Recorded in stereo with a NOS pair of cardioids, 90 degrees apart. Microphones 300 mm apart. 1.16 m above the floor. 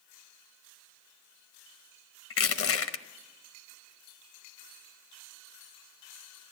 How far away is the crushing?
About 1.0 m.